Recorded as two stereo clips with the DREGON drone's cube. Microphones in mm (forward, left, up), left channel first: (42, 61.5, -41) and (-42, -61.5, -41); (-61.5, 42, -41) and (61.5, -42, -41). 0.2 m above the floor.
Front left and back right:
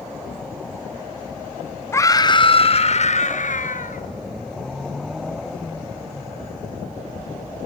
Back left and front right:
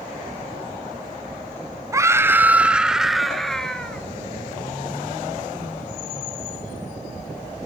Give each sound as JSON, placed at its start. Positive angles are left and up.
{"t": 1.9, "sound": "a scream", "azimuth_deg": 5, "distance_m": 1.4}